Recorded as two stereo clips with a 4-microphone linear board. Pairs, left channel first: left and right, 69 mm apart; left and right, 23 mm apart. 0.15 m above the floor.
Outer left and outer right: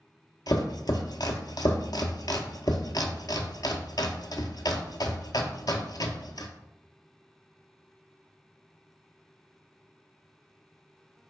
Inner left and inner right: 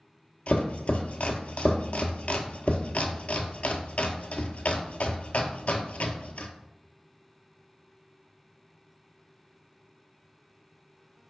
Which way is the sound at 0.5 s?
75° left (ahead or behind).